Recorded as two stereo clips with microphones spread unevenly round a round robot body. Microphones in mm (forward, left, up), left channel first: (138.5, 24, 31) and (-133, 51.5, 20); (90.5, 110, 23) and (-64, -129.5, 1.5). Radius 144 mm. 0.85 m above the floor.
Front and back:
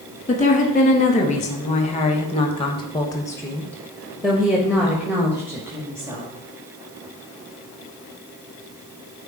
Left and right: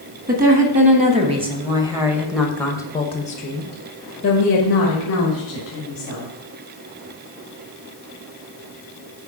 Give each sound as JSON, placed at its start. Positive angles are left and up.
{"t": 0.3, "sound": "a woman speaking", "azimuth_deg": -70, "distance_m": 1.8}